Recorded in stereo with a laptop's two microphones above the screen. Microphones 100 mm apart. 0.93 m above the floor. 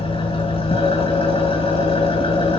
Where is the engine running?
70° left (ahead or behind), 5 m.